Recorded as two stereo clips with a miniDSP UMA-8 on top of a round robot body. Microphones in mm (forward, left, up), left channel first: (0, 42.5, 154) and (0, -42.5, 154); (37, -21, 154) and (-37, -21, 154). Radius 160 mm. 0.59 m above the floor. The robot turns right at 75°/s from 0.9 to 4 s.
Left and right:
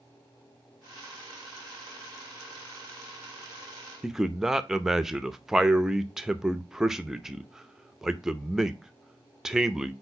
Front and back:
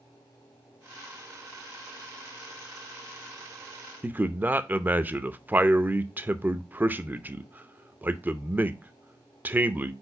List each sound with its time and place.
4.0 s a man speaking: 170° right, 0.9 m